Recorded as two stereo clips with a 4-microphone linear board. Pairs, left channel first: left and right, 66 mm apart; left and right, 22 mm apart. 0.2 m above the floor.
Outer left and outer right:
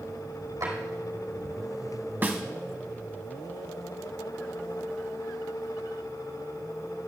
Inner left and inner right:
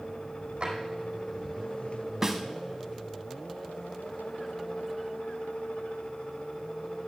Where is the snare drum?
30° right (ahead or behind), 1.2 m.